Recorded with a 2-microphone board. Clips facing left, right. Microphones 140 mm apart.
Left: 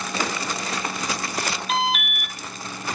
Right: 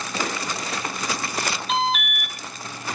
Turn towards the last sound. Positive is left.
turn(degrees=5)  # may be behind; listen again after turning